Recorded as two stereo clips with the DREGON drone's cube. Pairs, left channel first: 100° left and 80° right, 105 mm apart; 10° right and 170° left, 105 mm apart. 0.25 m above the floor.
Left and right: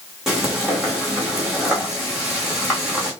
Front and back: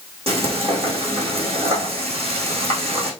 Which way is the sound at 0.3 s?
165° right.